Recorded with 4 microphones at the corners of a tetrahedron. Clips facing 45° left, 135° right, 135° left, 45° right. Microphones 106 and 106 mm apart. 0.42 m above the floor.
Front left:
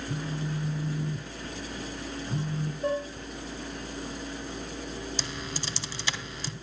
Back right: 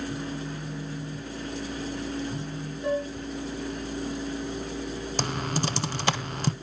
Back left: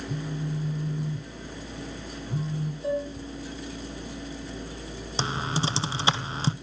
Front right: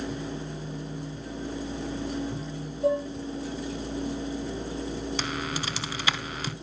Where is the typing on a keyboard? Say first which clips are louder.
Back right 8 dB, back left 3 dB; 165° right, 0.6 m.